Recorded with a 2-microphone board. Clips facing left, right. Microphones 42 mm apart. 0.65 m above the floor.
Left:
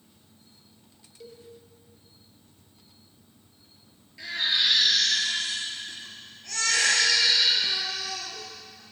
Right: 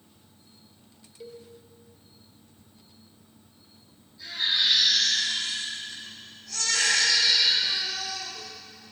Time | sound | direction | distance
1.2 | a cowbell | 10° right (ahead or behind) | 1.1 m
4.2 | a baby crying | 90° left | 4.5 m